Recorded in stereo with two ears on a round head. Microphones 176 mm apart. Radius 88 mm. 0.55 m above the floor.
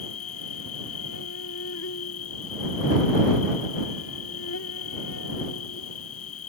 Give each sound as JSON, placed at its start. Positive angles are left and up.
{"t": 0.0, "sound": "an insect", "side_deg": 80}